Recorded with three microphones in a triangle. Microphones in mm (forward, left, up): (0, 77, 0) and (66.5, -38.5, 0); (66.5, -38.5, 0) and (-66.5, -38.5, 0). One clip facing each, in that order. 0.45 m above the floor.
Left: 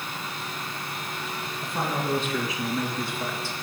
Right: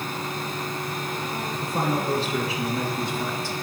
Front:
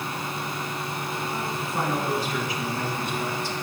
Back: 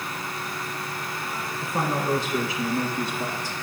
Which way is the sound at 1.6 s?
105° right.